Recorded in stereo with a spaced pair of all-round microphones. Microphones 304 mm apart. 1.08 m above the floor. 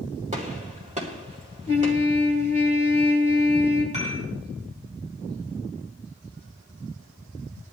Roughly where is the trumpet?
Left.